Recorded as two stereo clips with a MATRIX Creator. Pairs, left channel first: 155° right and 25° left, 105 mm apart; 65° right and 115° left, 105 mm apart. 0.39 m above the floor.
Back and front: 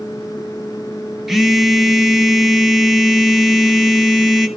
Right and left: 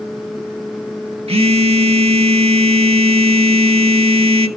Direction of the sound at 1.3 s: 110° left.